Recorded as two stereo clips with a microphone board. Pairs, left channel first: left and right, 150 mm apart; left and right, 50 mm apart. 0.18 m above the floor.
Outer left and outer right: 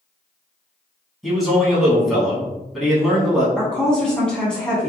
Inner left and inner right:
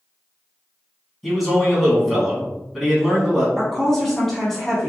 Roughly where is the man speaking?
Centre.